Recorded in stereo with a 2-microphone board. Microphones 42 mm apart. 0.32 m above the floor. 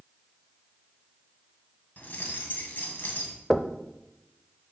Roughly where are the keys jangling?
Left.